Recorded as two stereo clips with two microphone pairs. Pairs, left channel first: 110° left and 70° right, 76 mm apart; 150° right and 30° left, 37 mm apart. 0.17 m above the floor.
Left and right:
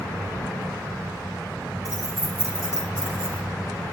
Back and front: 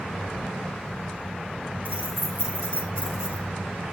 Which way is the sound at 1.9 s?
70° left.